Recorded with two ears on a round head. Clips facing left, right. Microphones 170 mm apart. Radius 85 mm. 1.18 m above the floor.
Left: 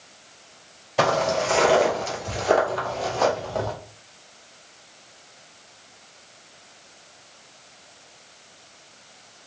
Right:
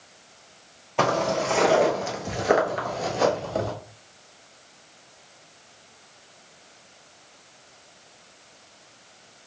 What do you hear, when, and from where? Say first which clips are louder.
1.0 s footsteps: left 2 dB; 5° left (ahead or behind), 1.5 m; by 3.7 s 25° right (ahead or behind), 1.4 m